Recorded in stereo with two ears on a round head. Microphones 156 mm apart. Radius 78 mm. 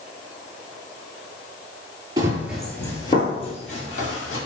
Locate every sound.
2.2 s running footsteps: 25° right (ahead or behind), 0.9 m; by 4.4 s 50° left (ahead or behind), 2.0 m